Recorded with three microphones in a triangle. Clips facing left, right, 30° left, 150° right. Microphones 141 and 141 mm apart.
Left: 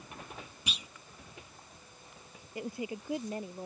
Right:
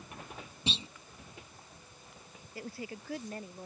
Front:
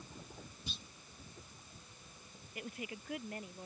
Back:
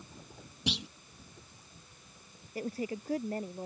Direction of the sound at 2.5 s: 160° left.